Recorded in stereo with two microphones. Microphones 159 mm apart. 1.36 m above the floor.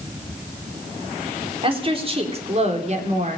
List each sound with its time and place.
1.6 s a woman speaking: 35° right (ahead or behind), 3.5 m; by 3.4 s 50° right (ahead or behind), 3.5 m